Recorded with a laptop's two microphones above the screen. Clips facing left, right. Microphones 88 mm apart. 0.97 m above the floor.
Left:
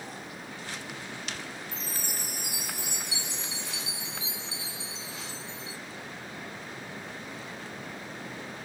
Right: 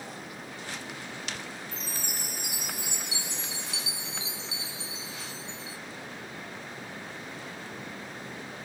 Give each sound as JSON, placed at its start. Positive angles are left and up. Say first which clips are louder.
{"t": 1.7, "sound": "a chime", "louder": "even", "side_deg": 40, "distance_m": 1.0}